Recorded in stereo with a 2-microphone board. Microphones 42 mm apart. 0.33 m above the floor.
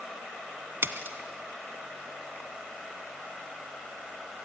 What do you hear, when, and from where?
0.8 s a splash: 65° right (ahead or behind), 1.3 m